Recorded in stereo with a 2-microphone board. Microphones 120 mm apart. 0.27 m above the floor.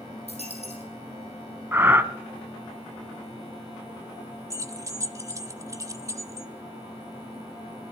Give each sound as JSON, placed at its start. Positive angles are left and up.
{"t": 0.3, "sound": "a dropped coin", "side_deg": 55, "distance_m": 4.5}
{"t": 1.7, "sound": "breathing", "side_deg": -20, "distance_m": 0.6}
{"t": 4.5, "sound": "keys jangling", "side_deg": -25, "distance_m": 0.8}